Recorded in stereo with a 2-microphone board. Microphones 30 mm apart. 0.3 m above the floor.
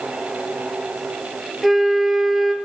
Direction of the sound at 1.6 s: 10° right (ahead or behind).